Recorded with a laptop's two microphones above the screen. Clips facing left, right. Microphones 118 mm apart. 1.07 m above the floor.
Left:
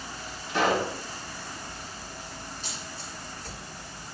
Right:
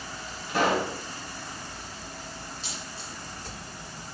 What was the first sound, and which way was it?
A pop, 5° right (ahead or behind).